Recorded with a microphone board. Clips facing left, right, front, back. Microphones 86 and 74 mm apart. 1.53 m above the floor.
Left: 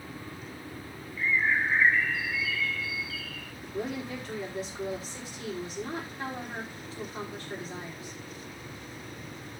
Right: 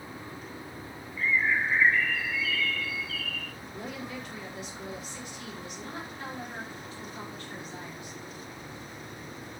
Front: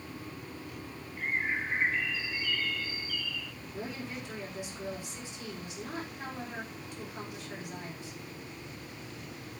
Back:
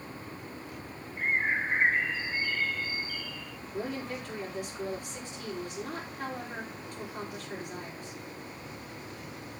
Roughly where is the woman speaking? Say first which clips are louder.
Left 7 dB, back 6 dB; behind left.